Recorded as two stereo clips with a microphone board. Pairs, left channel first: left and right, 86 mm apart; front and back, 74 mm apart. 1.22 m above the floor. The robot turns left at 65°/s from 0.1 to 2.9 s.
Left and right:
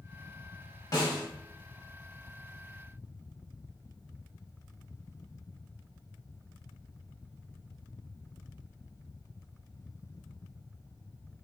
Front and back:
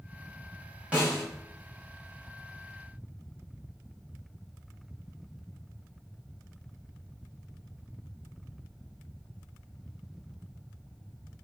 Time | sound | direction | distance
0.9 | a snare drum | 110° left | 1.1 m